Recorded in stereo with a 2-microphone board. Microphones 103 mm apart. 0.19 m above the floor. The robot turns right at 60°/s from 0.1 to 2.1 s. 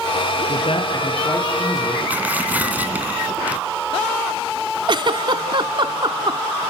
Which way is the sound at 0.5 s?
105° left.